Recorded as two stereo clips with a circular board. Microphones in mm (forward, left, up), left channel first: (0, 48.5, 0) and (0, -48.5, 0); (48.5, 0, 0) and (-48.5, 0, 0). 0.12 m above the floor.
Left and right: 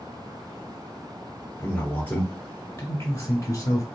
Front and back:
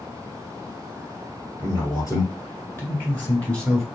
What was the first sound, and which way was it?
A man speaking, 15° left.